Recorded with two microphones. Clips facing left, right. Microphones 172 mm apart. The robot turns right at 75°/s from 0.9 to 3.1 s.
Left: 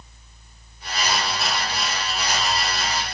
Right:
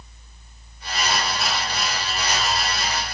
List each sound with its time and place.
Only background noise.